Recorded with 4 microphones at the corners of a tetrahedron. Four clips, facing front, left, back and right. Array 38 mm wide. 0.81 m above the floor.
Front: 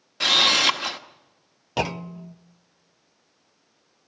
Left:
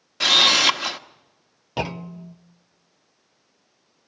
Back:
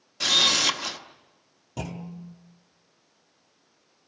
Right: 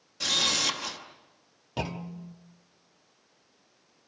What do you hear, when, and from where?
0.2 s a camera shutter: 60° left, 1.2 m
1.8 s a clunk: 25° left, 0.6 m